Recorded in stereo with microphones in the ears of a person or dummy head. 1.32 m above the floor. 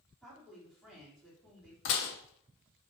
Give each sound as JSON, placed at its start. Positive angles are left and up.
{"t": 0.2, "sound": "a woman speaking", "side_deg": 5, "distance_m": 2.5}
{"t": 1.9, "sound": "dishes clattering", "side_deg": 65, "distance_m": 1.1}